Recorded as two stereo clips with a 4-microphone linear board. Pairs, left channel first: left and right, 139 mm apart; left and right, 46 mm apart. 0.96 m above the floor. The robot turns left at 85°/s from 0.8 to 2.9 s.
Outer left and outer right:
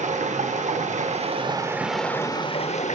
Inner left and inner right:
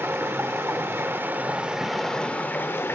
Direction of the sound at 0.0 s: 80° right.